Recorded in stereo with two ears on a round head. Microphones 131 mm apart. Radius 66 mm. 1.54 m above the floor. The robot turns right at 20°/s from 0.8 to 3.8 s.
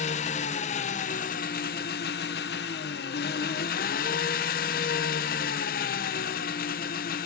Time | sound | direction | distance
0.0 | an engine running | 50° left | 1.0 m